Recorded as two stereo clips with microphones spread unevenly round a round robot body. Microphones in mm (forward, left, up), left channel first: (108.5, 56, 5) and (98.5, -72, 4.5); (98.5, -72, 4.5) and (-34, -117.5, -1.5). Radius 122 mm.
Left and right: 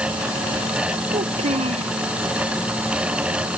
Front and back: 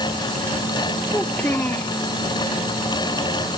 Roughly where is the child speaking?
Ahead right.